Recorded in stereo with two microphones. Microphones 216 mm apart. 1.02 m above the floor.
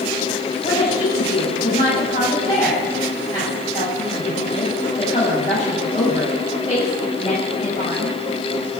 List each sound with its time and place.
0.6 s a woman speaking: 30° left (ahead or behind), 7.5 m